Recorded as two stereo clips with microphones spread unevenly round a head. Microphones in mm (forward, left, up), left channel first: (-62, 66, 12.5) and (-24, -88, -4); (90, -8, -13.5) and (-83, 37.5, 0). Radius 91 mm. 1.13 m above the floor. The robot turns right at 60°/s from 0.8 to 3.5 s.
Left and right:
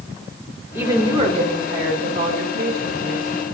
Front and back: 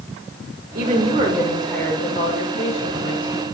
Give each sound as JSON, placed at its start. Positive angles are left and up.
{"t": 0.8, "sound": "a woman speaking", "azimuth_deg": -150, "distance_m": 4.5}